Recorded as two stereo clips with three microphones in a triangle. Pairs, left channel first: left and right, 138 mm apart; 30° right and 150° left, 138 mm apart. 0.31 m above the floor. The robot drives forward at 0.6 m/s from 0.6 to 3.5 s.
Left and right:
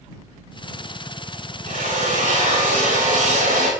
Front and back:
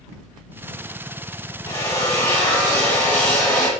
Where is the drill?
95° right, 7 m; by 3.7 s 105° right, 7.5 m.